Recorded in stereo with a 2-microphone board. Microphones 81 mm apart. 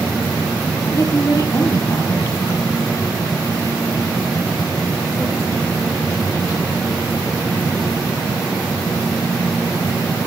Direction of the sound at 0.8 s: 40° left (ahead or behind).